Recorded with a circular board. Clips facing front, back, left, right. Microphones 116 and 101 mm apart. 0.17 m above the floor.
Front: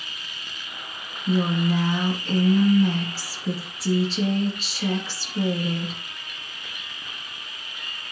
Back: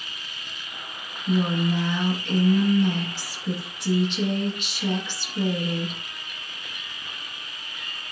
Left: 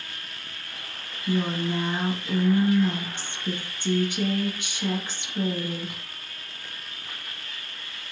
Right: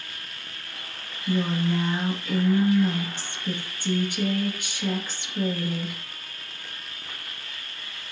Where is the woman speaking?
25° left, 1.8 m.